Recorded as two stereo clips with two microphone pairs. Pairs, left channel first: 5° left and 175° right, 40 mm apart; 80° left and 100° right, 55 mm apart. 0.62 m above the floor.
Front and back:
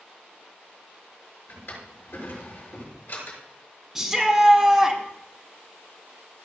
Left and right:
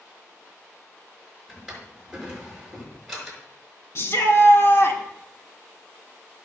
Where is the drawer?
15° right, 6 m.